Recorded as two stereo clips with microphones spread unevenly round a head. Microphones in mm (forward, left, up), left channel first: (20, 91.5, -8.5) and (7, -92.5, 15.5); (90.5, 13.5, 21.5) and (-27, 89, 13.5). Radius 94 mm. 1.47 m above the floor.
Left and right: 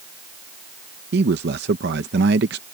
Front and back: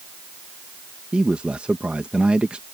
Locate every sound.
1.1 s a man speaking: 125° right